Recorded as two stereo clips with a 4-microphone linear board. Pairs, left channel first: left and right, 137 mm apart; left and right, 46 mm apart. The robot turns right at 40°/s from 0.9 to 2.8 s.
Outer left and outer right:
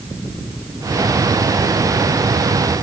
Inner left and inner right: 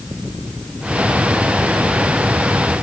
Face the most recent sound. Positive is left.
No sound to turn to.